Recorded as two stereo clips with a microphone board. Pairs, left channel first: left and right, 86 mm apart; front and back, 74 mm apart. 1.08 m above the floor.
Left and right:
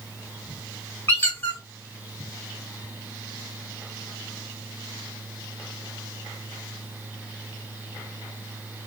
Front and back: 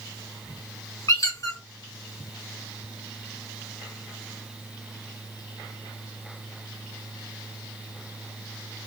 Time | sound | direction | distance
1.1 | a squeak | 30° left | 1.1 m